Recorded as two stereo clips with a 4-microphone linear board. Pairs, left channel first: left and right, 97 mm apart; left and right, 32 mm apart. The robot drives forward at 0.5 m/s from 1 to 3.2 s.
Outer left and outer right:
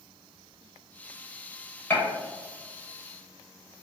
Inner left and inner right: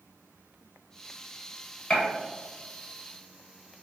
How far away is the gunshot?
About 1.0 m.